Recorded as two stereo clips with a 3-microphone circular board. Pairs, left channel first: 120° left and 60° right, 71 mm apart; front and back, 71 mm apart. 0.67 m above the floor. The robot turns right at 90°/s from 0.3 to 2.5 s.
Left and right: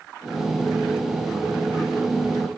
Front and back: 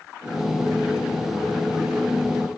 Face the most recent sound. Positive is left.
No sound to turn to.